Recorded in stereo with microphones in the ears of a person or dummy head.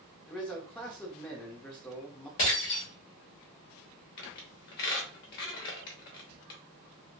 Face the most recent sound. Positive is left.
turn(degrees=60)  # may be behind; listen again after turning